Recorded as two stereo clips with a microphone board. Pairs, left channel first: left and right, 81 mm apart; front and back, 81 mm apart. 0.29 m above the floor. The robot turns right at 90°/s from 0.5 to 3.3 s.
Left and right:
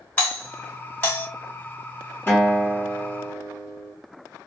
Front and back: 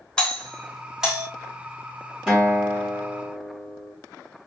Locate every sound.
0.2 s a doorbell: 55° left, 1.4 m; by 1.3 s 125° left, 1.4 m
2.3 s a guitar: 105° left, 1.4 m; by 3.9 s 160° right, 1.4 m